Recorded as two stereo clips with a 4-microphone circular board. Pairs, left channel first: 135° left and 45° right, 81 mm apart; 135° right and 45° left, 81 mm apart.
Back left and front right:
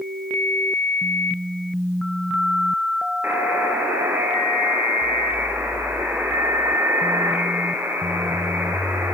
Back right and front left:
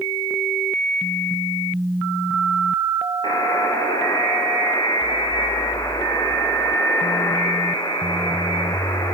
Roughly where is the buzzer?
Right.